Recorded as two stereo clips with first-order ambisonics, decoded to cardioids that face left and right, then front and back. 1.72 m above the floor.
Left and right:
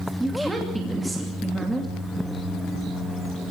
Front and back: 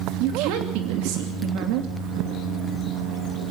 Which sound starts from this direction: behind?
A woman speaking, at 0.2 s.